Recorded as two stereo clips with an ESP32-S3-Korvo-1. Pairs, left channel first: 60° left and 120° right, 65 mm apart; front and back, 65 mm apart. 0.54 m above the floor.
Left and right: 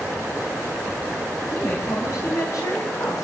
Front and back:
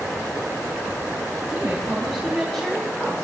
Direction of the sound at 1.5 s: 105° left.